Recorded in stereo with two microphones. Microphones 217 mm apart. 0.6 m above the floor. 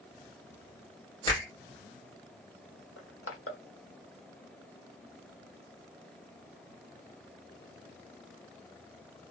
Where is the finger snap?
20° left (ahead or behind), 1.4 m.